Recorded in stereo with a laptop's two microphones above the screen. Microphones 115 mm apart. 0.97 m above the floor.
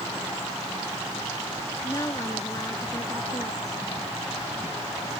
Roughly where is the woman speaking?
Left.